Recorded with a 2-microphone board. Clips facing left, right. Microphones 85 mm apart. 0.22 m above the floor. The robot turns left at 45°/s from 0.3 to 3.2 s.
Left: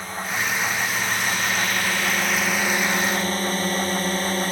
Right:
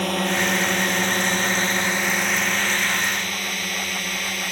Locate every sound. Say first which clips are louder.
0.0 s a drone: right 5 dB; 75° right (ahead or behind); by 4.5 s 35° left (ahead or behind)